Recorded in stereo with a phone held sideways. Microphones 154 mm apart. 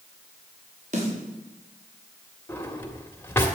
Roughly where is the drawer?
Centre.